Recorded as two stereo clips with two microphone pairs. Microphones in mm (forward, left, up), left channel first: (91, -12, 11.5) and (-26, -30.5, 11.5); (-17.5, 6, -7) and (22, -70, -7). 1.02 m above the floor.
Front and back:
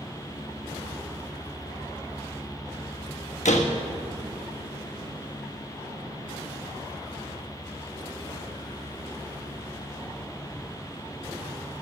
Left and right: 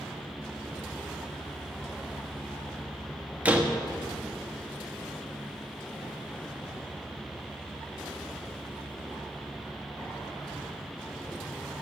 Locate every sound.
3.5 s a door slam: 10° left, 1.3 m